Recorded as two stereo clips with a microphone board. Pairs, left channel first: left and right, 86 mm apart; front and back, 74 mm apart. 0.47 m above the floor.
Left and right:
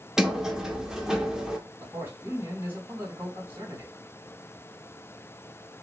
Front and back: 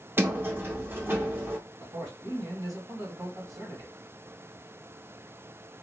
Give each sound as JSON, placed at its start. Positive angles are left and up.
{"t": 0.2, "sound": "a sliding door", "azimuth_deg": -165, "distance_m": 0.7}
{"t": 1.8, "sound": "a man speaking", "azimuth_deg": -160, "distance_m": 3.0}